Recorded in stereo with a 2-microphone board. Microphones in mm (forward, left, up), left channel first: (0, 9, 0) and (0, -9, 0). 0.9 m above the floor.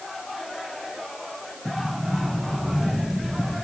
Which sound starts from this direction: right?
A sliding door, at 1.6 s.